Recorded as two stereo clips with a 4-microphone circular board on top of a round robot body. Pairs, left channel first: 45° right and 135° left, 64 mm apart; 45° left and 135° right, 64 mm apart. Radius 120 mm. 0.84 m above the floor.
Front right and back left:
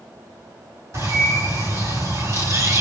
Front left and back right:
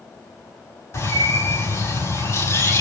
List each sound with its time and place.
0.9 s a bird: 90° left, 5.5 m